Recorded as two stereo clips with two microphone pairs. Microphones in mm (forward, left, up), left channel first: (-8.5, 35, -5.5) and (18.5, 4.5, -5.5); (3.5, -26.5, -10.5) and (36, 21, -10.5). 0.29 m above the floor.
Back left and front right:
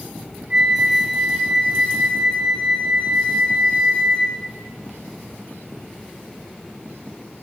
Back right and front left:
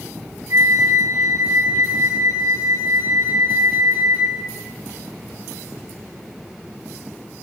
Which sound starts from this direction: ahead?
A flute, at 0.5 s.